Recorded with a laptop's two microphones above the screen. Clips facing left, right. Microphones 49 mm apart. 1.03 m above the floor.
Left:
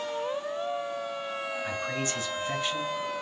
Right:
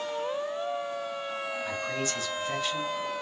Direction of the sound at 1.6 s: 30° left (ahead or behind).